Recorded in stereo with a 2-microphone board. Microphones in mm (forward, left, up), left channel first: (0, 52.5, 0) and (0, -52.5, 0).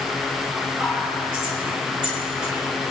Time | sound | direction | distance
0.8 | whispering | 10° right (ahead or behind) | 4.5 m